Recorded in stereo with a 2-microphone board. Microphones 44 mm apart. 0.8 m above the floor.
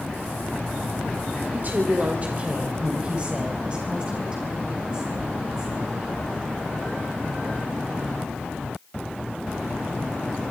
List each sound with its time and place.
1.5 s a woman speaking: 45° right (ahead or behind), 1.9 m; by 6.0 s 20° right (ahead or behind), 6.5 m